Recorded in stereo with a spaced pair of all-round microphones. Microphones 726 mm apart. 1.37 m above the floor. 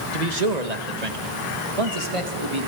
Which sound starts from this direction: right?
A man speaking, at 0.1 s.